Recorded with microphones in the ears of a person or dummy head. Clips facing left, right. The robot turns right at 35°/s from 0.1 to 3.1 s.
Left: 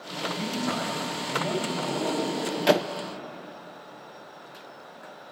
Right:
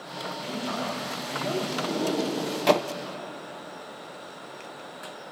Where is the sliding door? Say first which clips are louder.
Right 1 dB; 20° right, 0.8 m; by 2.9 s 20° left, 0.8 m.